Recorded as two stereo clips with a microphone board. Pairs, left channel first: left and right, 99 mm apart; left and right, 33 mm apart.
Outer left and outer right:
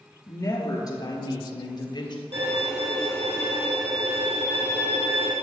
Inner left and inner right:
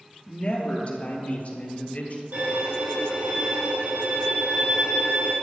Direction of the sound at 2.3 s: 65° right (ahead or behind).